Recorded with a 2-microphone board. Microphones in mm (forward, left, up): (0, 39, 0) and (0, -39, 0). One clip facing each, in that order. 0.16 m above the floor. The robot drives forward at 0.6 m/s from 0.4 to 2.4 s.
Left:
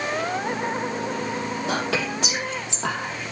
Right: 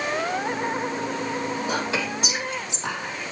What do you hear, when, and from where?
1.7 s whispering: 70° left (ahead or behind), 5 m; by 3.3 s 75° left (ahead or behind), 5 m